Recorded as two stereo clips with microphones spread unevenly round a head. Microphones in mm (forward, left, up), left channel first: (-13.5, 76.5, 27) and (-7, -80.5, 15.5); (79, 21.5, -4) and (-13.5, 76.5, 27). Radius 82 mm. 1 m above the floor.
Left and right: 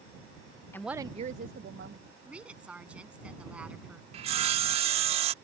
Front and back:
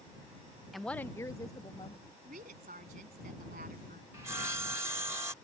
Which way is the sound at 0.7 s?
25° left.